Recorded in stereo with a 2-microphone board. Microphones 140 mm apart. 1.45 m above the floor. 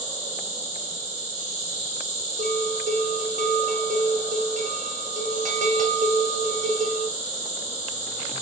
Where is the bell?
70° right (ahead or behind), 0.7 m.